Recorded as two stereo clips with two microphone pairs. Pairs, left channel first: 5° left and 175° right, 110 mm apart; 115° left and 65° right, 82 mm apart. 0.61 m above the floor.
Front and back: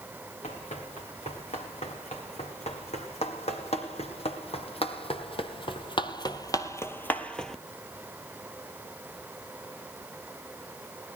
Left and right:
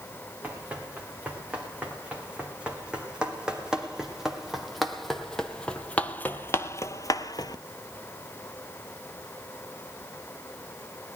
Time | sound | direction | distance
0.4 | running footsteps | 5° left | 4 m